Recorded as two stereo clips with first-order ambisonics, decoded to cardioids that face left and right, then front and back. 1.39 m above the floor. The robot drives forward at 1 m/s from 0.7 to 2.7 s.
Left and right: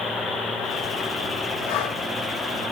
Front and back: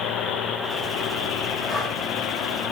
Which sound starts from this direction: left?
Breathing, at 1.7 s.